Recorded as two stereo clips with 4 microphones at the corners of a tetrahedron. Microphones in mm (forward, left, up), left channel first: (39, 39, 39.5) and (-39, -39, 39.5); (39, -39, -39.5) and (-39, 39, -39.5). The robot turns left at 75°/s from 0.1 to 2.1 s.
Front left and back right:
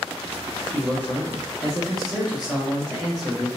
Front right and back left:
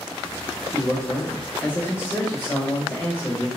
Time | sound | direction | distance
0.7 | a man speaking | 35° left | 1.1 m